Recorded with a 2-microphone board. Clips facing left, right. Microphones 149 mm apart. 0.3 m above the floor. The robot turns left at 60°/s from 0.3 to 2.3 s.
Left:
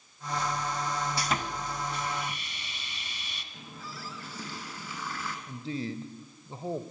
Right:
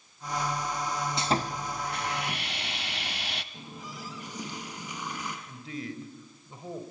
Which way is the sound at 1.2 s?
25° right.